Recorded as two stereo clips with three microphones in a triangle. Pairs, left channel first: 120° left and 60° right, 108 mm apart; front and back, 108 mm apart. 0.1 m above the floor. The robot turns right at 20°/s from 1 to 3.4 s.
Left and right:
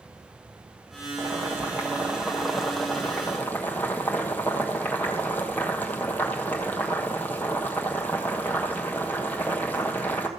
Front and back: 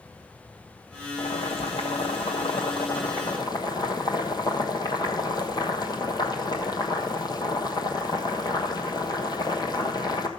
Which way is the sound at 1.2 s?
5° left.